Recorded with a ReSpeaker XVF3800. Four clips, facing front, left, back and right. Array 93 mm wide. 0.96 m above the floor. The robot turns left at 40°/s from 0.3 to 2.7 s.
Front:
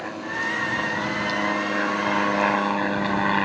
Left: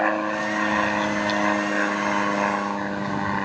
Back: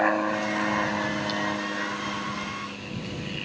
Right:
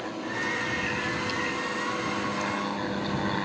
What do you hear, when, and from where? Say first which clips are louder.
0.0 s an aircraft: left 9 dB, back 5 dB; 130° left; by 3.5 s 20° left